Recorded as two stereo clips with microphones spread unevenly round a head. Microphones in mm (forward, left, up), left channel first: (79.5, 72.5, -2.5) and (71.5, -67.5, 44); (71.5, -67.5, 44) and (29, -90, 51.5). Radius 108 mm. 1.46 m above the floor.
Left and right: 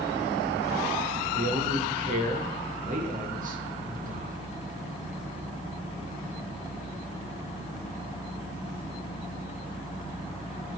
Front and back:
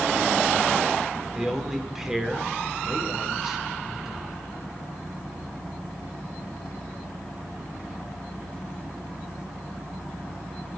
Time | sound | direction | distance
1.3 | a man speaking | 70° right | 4.5 m